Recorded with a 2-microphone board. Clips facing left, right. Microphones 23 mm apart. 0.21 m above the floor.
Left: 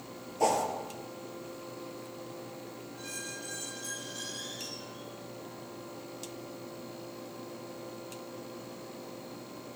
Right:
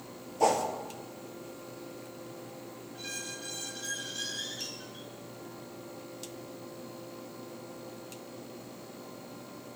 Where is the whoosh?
5° right (ahead or behind), 2.5 m.